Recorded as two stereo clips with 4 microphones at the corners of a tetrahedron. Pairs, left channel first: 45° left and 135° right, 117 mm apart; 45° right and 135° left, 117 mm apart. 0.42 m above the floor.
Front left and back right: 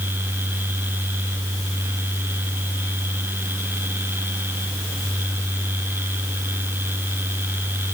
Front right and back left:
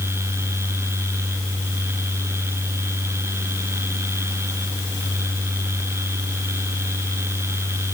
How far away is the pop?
No pop in this recording.